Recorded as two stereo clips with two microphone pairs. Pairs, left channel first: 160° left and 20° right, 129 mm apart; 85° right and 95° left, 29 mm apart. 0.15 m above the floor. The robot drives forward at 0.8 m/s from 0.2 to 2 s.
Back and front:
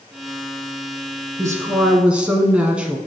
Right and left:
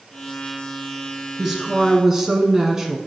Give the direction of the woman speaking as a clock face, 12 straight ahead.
11 o'clock.